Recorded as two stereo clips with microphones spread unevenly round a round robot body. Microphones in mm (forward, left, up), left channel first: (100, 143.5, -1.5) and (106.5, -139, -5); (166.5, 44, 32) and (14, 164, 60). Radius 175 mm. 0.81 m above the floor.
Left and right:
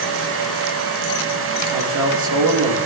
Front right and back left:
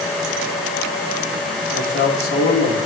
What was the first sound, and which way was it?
A man speaking, 75° right.